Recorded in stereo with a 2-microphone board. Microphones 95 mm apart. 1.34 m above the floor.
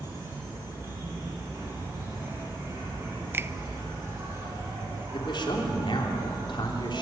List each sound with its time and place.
0.0 s an insect: 35° right (ahead or behind), 8.5 m
3.3 s a finger snap: 25° right (ahead or behind), 0.5 m
5.1 s a man speaking: 55° left (ahead or behind), 3.5 m